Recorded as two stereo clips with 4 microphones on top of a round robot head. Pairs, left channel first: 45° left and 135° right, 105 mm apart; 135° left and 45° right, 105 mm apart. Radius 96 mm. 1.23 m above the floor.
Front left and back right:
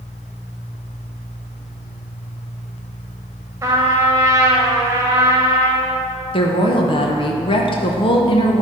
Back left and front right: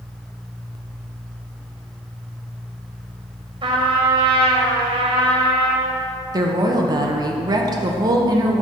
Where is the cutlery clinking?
I don't hear cutlery clinking.